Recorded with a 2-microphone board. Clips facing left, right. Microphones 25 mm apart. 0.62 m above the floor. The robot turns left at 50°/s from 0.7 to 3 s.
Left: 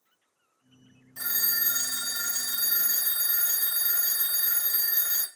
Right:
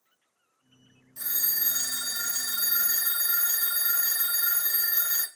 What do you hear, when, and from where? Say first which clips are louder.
1.2 s a phone ringing: left 3 dB; 45° left, 0.8 m; by 5.3 s 45° right, 0.8 m